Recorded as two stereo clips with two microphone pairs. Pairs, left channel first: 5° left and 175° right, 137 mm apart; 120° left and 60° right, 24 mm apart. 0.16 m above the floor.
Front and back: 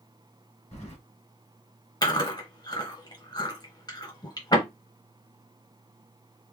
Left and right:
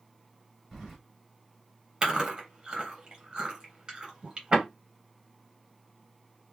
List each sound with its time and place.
0.7 s keys jangling: 40° left, 2.0 m
2.0 s chewing: 20° right, 1.5 m